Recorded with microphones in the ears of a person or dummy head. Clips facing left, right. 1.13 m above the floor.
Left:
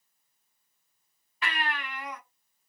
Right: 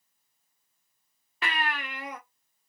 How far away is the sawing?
I don't hear sawing.